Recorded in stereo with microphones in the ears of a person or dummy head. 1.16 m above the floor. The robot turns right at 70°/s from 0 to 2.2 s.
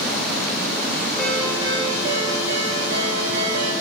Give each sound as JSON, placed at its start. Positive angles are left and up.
{"t": 1.2, "sound": "a ringtone", "azimuth_deg": 170, "distance_m": 1.7}